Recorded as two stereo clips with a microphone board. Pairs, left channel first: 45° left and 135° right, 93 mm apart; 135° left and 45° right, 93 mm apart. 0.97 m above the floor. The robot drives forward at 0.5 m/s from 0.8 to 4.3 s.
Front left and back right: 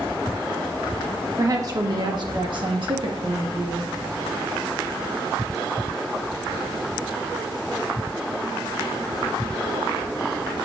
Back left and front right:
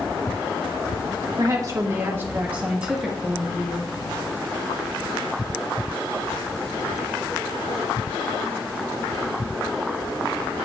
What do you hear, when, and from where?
1.4 s a woman speaking: 85° right, 1.2 m; by 3.9 s 140° right, 1.7 m